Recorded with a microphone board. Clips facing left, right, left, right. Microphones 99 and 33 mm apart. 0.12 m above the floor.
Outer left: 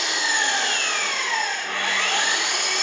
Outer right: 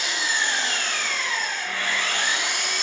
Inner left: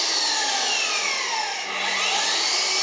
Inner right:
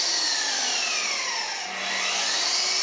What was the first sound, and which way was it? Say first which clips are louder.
An engine running: outer left 2 dB, inner left 3 dB; 70° left (ahead or behind).